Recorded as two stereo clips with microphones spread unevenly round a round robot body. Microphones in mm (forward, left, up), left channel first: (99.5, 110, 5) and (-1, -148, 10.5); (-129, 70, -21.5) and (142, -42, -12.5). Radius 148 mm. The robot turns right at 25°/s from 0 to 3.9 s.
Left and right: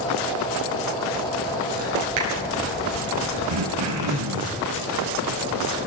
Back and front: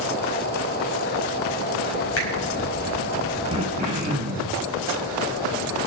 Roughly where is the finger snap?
Behind right.